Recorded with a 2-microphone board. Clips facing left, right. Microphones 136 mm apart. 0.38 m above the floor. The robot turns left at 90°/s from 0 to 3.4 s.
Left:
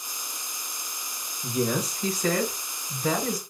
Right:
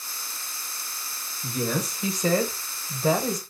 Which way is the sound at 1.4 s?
30° left.